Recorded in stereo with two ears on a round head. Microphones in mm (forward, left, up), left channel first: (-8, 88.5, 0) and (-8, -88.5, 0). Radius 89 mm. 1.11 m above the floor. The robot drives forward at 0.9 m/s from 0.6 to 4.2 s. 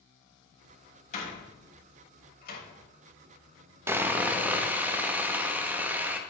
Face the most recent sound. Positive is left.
turn(degrees=-10)  # may be behind; listen again after turning